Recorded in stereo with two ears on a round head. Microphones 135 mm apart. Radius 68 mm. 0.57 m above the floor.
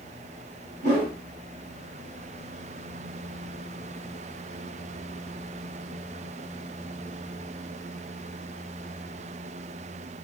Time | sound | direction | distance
0.8 | a whoosh | 55° right (ahead or behind) | 1.9 m